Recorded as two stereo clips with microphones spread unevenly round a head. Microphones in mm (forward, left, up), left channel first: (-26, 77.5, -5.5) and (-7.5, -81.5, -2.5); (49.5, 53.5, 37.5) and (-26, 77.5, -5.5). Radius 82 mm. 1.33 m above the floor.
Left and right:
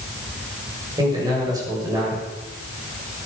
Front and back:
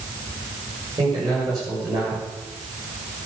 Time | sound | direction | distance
1.0 | a man speaking | 150° right | 7 m